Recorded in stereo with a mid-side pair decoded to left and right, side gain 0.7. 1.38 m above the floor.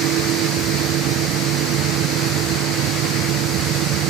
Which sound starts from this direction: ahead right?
A fan, at 0.0 s.